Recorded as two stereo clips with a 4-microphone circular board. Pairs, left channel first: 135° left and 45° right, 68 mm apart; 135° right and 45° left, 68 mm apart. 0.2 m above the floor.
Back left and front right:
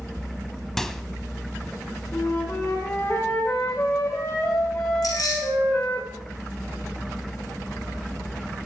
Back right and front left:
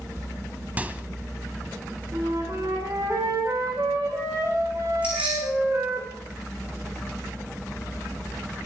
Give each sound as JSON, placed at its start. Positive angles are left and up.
{"t": 0.8, "sound": "a microwave", "azimuth_deg": 60, "distance_m": 0.9}
{"t": 2.1, "sound": "a flute", "azimuth_deg": 85, "distance_m": 6.0}
{"t": 5.0, "sound": "keys jangling", "azimuth_deg": 115, "distance_m": 9.5}